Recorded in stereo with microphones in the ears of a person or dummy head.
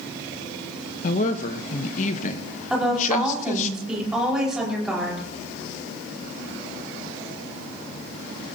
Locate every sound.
1.0 s a woman speaking: 45° left (ahead or behind), 1.3 m
2.7 s a woman speaking: 5° right (ahead or behind), 5.5 m